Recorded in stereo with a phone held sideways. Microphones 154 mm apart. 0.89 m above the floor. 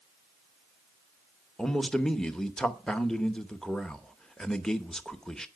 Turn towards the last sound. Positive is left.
turn(degrees=5)  # may be behind; listen again after turning